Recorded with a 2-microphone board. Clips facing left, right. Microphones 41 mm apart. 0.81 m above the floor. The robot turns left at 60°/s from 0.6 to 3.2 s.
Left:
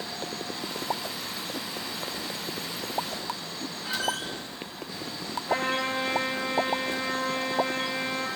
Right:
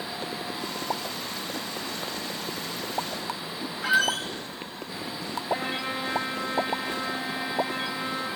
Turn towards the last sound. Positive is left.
turn(degrees=80)